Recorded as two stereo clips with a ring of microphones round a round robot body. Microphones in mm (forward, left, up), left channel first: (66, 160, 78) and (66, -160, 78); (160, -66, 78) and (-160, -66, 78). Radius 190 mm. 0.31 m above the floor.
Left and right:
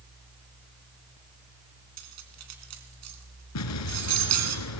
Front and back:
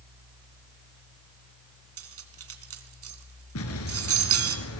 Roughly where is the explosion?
Ahead left.